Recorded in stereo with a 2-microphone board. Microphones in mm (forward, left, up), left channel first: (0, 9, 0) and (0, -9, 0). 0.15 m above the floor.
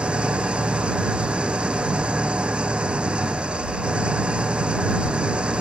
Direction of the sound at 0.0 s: 70° right (ahead or behind).